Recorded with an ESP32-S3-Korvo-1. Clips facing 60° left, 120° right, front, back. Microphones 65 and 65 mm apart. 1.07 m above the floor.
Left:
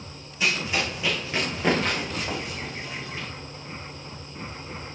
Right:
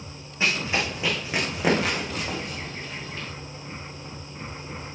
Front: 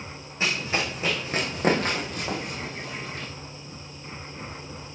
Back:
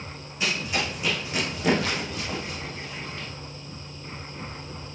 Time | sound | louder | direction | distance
0.4 | running footsteps | right 1 dB, front 1 dB | 60° right | 3.5 m